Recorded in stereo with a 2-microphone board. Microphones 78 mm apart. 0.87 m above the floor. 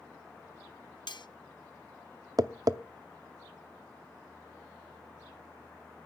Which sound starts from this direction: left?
Cutlery clinking, at 1.1 s.